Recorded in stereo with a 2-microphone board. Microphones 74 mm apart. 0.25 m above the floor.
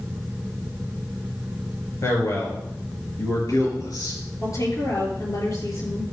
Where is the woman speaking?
50° left (ahead or behind), 5.5 m.